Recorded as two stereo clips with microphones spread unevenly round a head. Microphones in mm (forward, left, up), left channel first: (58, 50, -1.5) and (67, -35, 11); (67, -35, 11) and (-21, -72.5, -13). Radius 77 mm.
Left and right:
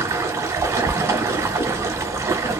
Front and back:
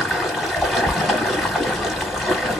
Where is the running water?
55° right, 1.0 m.